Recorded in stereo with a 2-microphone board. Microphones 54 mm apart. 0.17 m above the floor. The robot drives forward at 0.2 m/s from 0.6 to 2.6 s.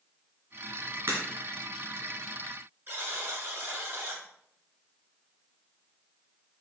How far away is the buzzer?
About 2.5 m.